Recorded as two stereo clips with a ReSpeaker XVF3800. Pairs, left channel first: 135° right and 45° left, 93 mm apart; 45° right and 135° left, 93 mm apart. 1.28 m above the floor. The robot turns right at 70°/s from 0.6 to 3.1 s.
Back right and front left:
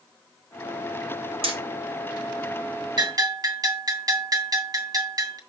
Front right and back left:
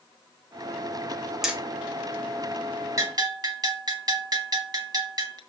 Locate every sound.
1.4 s hammering: 50° left, 1.8 m; by 1.6 s 60° left, 1.8 m
3.0 s a bell: 85° left, 1.9 m; by 5.4 s 95° left, 1.9 m